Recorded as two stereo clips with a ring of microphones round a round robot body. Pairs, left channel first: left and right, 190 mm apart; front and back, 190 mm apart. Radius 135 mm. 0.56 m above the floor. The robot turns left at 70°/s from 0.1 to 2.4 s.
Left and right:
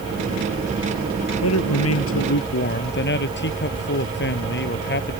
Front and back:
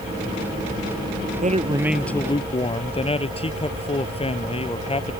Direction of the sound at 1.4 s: 130° left.